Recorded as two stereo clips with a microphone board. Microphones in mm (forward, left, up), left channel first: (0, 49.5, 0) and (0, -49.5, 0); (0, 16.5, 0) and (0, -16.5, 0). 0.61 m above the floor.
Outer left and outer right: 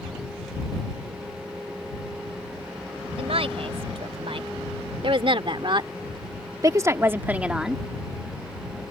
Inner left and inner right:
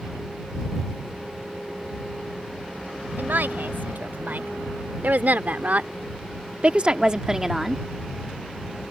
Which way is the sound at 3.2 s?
70° right (ahead or behind).